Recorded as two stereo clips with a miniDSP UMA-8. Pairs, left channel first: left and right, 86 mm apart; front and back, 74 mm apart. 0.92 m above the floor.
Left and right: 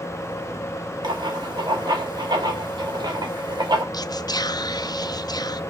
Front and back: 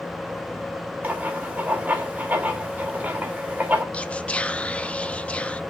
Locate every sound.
1.0 s writing: 115° right, 1.9 m
3.9 s whispering: 70° left, 0.6 m